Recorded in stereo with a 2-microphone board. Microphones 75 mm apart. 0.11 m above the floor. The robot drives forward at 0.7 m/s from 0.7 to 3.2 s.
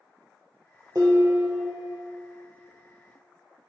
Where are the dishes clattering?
55° right (ahead or behind), 1.5 m; by 2.0 s 40° right (ahead or behind), 1.9 m.